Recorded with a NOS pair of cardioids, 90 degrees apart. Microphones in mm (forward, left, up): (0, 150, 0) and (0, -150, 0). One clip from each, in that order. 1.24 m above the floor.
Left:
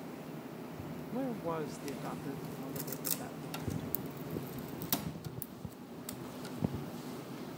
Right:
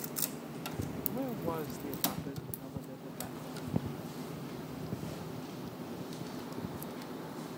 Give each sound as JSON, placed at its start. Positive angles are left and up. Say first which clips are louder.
{"t": 1.1, "sound": "a woman speaking", "louder": "even", "azimuth_deg": 10}